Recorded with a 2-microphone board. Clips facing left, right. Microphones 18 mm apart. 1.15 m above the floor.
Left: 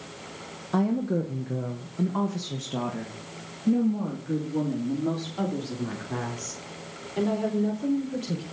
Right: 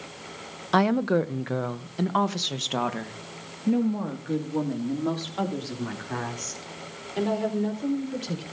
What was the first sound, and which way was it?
A woman speaking, 65° right (ahead or behind).